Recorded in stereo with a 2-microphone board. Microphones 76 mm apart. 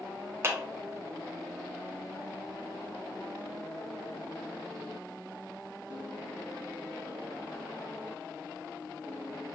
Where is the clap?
30° right (ahead or behind), 0.9 m.